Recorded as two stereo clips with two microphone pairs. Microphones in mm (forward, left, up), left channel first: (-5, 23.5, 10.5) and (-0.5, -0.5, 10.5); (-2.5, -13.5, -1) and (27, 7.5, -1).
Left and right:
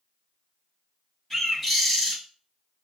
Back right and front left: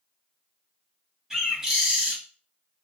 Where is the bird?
75° left, 1.3 m.